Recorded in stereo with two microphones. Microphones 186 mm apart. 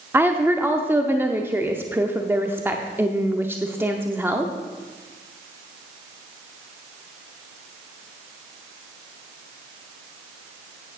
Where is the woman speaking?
10° right (ahead or behind), 0.8 m.